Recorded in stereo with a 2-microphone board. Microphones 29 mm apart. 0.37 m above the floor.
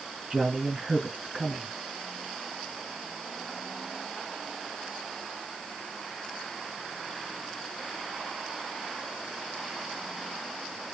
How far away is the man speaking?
About 2 m.